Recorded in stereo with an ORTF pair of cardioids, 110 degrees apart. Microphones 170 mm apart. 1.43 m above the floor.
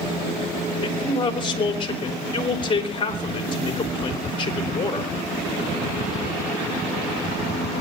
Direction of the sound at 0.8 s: 30° left.